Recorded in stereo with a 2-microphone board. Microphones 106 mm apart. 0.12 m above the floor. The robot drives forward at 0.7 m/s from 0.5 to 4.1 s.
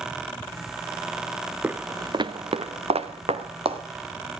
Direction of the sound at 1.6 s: 15° right (ahead or behind).